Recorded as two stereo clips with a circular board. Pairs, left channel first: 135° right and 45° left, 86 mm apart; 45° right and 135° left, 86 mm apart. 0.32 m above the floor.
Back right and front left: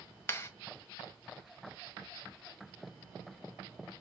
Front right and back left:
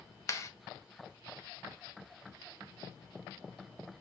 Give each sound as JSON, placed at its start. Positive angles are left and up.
{"t": 0.3, "sound": "a clap", "azimuth_deg": -80, "distance_m": 1.7}